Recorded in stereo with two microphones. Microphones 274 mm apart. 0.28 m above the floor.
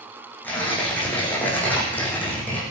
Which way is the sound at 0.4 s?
5° left (ahead or behind).